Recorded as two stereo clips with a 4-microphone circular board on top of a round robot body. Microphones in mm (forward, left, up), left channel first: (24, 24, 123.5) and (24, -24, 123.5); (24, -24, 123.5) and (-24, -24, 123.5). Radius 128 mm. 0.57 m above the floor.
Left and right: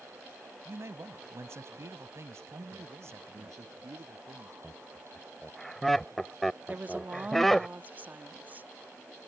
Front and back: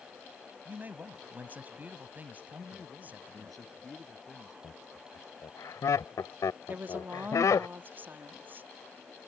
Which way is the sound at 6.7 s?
140° right.